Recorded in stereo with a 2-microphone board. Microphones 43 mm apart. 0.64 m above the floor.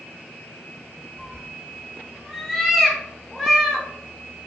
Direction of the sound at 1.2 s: Centre (ahead or behind).